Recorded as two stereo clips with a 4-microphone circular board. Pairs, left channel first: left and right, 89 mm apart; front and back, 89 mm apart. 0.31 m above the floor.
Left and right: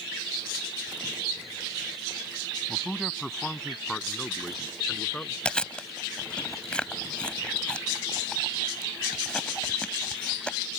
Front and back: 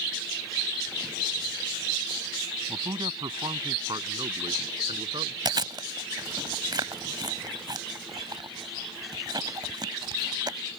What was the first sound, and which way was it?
A man speaking, straight behind.